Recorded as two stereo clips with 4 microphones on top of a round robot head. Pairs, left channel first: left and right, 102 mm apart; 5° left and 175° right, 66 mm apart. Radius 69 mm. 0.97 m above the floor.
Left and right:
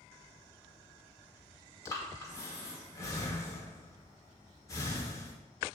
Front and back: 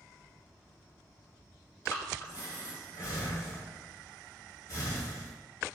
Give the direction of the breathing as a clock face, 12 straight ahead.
11 o'clock.